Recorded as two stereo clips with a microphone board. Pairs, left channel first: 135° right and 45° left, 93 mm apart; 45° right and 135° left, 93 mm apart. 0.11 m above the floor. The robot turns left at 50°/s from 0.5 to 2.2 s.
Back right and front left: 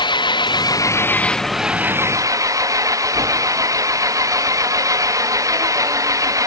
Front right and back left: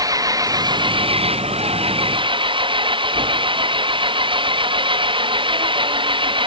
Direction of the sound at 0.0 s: 175° right.